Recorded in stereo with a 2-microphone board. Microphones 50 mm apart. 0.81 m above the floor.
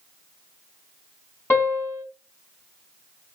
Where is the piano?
50° left (ahead or behind), 2.5 m.